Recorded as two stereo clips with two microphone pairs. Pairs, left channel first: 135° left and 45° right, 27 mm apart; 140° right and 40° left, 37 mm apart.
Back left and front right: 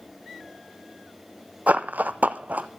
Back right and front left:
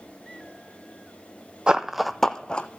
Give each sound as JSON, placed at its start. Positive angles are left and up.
{"t": 1.7, "sound": "running footsteps", "azimuth_deg": -20, "distance_m": 0.6}